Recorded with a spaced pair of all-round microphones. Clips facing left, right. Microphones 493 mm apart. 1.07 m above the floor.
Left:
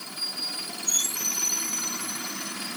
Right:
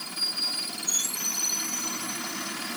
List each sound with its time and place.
Only background noise.